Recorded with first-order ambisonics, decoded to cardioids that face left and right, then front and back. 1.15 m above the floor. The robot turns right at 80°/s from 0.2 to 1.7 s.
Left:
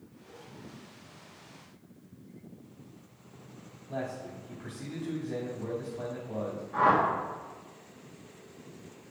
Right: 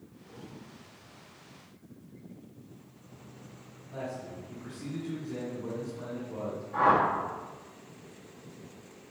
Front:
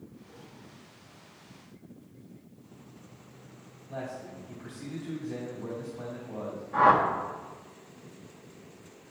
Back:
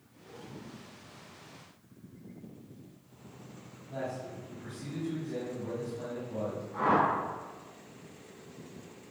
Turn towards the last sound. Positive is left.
turn(degrees=20)